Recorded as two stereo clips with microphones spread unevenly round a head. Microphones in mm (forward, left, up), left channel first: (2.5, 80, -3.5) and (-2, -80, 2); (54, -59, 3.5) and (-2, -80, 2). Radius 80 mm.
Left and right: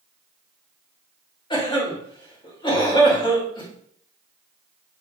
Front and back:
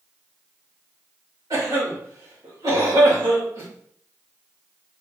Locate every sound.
1.5 s a cough: 150° left, 2.0 m